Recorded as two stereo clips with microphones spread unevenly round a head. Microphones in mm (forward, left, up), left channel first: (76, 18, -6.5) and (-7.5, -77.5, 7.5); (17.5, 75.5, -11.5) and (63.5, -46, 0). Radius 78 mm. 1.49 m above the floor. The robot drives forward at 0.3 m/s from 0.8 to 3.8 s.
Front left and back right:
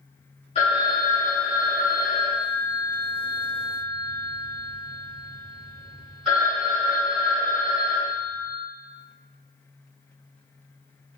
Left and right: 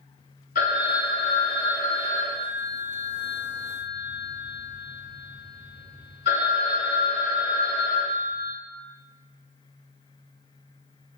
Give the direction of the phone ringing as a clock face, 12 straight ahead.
9 o'clock.